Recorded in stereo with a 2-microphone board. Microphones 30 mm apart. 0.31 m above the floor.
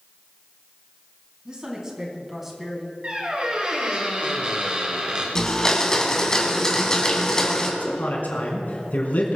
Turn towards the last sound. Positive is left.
turn(degrees=65)  # may be behind; listen again after turning